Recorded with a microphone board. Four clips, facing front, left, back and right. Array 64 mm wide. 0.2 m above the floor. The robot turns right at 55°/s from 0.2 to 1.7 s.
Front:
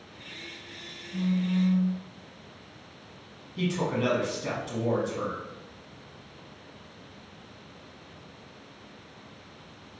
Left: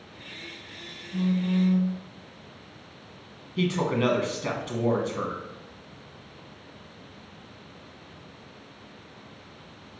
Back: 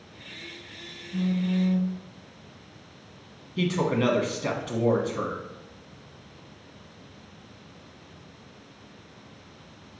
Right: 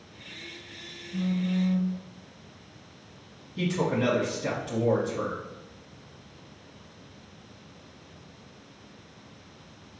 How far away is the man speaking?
About 1.3 m.